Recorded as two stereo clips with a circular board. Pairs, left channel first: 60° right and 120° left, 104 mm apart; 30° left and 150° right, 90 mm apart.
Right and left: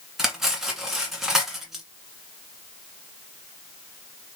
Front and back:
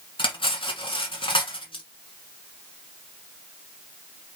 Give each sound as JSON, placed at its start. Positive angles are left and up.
{"t": 0.2, "sound": "cutlery clinking", "azimuth_deg": 35, "distance_m": 1.3}